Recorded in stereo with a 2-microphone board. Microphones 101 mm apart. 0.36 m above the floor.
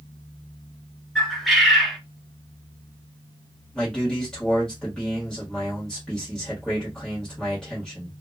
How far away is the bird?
About 1.1 m.